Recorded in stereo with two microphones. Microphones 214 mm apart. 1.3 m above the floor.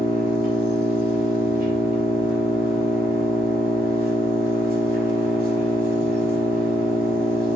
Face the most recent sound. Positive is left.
turn(degrees=-45)  # may be behind; listen again after turning